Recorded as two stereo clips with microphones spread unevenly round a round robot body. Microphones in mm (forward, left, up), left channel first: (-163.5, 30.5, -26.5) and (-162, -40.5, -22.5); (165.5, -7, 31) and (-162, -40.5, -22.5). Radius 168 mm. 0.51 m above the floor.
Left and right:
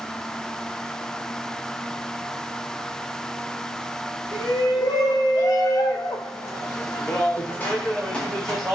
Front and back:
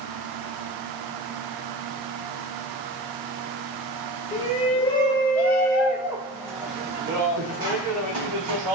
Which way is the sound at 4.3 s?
80° left.